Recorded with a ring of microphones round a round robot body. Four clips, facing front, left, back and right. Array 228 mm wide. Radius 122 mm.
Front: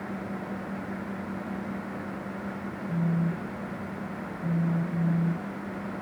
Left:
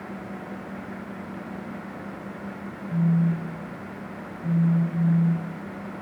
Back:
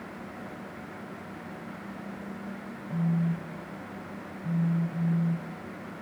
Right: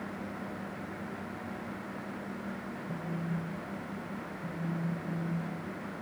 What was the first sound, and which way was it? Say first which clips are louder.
A phone buzzing: left 14 dB, even; 5° right.